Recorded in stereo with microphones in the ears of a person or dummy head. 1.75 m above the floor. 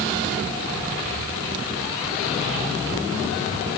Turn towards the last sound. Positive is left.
No sound to turn to.